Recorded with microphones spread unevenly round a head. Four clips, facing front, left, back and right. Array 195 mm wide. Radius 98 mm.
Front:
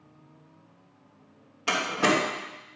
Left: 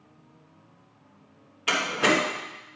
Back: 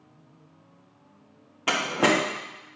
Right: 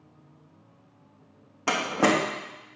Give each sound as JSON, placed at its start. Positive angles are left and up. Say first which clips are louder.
{"t": 1.7, "sound": "a door slam", "louder": "right 1 dB, back 2 dB", "azimuth_deg": -130, "distance_m": 1.7}